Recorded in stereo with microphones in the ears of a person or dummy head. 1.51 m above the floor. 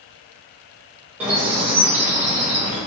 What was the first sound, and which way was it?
A bird, centre (ahead or behind).